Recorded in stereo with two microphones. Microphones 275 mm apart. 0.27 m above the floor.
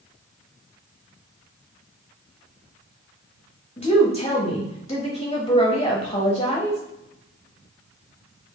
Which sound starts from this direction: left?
A woman speaking, at 3.8 s.